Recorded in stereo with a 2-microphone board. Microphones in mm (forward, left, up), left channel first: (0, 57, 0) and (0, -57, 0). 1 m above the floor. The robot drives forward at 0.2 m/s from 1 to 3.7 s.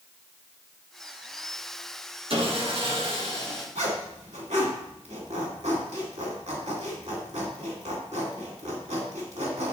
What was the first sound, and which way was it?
Sawing, 55° right (ahead or behind).